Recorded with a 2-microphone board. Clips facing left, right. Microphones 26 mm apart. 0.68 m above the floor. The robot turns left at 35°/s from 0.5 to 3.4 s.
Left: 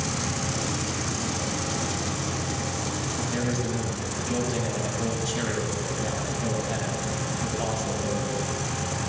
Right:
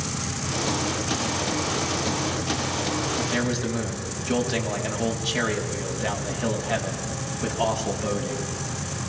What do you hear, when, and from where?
3.2 s a man speaking: 20° right (ahead or behind), 5 m; by 8.5 s 30° right (ahead or behind), 5 m